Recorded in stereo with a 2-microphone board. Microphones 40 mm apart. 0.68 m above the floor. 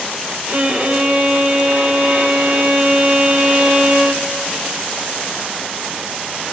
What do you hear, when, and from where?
0.5 s a violin: 40° right (ahead or behind), 1.7 m